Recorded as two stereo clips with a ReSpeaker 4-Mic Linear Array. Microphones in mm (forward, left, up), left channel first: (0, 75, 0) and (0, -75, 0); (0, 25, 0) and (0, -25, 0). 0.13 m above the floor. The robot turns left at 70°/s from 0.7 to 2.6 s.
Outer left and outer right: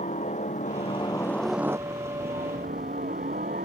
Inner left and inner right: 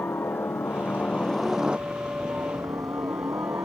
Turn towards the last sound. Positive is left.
turn(degrees=-75)